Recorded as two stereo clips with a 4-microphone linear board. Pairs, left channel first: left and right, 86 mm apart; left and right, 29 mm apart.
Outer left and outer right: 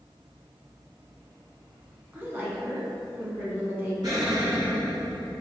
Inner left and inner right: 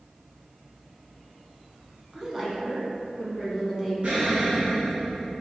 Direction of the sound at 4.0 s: 55° right (ahead or behind).